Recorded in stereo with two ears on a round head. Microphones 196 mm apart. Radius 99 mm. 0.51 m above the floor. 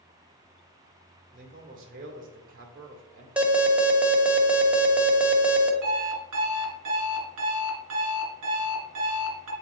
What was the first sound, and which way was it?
A man speaking, 40° right (ahead or behind).